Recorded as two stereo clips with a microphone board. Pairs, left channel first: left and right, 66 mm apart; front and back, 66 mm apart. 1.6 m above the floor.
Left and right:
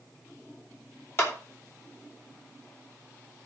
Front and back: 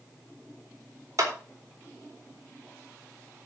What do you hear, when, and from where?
1.2 s a clap: 140° left, 4 m